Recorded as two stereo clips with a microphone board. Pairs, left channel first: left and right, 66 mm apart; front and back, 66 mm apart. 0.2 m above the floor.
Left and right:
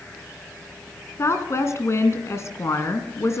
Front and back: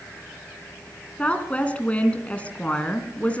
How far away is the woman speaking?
About 2.5 m.